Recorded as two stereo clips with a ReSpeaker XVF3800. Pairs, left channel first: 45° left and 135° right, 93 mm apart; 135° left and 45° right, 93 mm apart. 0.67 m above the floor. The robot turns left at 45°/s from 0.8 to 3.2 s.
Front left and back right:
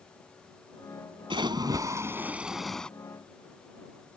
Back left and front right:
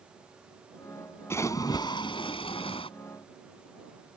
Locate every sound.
1.3 s a splash: 165° right; by 2.9 s 125° left